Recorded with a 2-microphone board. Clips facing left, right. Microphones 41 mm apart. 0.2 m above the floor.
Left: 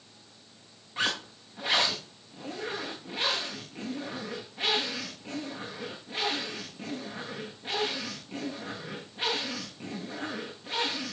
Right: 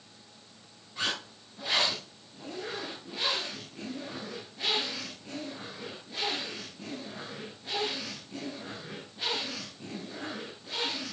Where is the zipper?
30° left (ahead or behind), 8 m.